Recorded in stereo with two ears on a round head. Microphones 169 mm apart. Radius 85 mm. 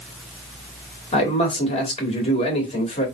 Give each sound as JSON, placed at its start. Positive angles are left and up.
{"t": 1.1, "sound": "a man speaking", "side_deg": 35, "distance_m": 1.8}